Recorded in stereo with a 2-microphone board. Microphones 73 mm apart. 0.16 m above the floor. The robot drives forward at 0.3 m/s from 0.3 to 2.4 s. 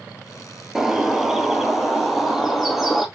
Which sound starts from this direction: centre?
A bird, at 0.8 s.